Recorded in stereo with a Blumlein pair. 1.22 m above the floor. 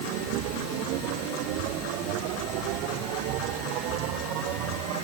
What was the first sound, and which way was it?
A machine running, 40° right.